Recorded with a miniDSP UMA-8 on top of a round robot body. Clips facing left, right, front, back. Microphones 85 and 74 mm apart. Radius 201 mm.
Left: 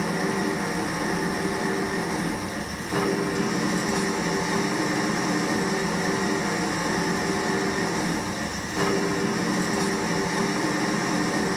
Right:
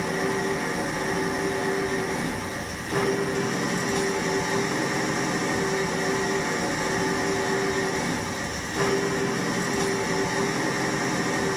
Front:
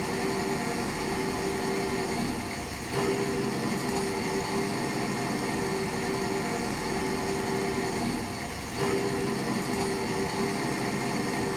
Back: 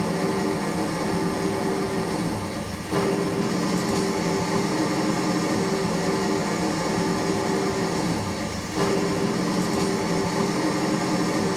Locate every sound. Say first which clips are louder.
0.0 s an engine running: even, back 5 dB; 175° left, 1.2 m